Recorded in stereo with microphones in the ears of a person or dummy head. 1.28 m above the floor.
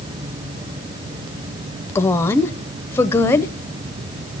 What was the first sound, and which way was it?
A woman speaking, 15° left (ahead or behind).